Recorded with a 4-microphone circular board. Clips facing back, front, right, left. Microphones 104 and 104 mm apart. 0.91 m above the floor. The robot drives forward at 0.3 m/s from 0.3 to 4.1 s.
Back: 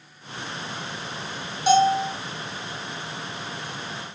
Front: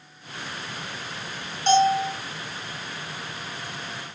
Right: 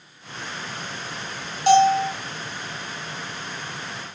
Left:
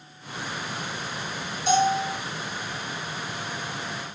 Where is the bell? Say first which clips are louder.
Back 1 dB, right 6 dB; 100° right, 1.7 m; by 2.1 s 105° right, 1.7 m.